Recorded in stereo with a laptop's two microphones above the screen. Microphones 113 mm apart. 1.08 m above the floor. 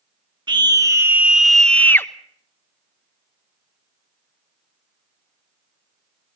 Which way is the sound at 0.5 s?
40° right (ahead or behind).